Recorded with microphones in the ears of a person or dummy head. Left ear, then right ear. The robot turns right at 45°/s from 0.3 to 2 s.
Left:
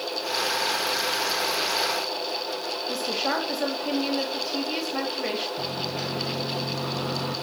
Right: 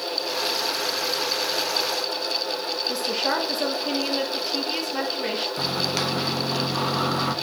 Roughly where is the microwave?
Right.